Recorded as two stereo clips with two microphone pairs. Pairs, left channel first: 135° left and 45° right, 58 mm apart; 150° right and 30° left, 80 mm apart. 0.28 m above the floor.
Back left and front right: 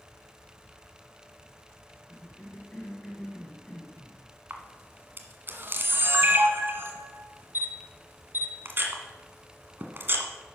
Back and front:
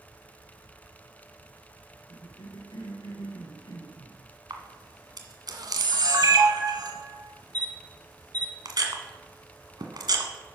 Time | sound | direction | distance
2.1 | a cough | 150° right | 3 m
4.5 | a camera shutter | 5° left | 1.3 m